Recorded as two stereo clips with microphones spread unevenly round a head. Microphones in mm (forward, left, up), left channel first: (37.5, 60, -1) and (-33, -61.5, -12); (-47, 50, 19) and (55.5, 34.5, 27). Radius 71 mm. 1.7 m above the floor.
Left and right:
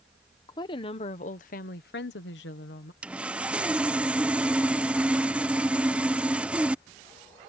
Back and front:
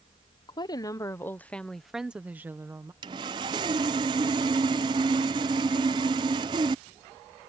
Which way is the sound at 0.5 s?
125° left.